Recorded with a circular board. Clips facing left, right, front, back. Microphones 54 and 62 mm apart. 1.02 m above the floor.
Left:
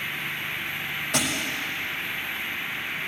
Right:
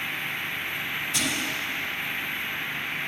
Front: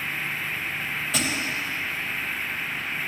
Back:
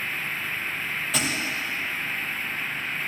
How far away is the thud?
About 2 m.